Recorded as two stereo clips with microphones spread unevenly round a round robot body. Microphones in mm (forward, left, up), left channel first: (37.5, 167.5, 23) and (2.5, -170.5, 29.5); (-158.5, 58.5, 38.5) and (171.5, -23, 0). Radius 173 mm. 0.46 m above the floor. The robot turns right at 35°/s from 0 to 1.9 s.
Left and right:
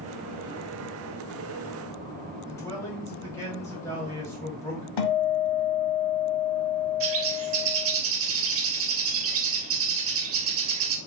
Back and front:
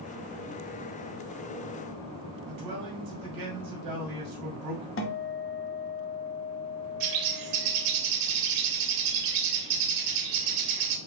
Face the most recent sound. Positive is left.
turn(degrees=-45)